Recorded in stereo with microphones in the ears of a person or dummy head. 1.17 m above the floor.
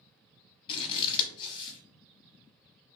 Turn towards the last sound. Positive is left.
turn(degrees=30)  # may be behind; listen again after turning